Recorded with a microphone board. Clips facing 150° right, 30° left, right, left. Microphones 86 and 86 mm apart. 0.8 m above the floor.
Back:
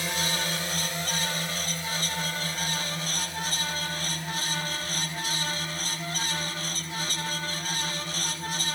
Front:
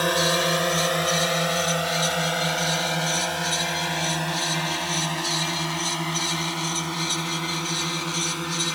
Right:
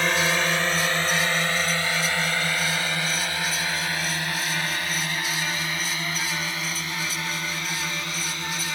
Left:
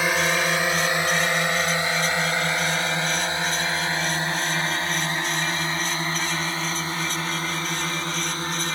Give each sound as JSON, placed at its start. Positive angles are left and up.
{"t": 0.0, "sound": "a drone", "azimuth_deg": 10}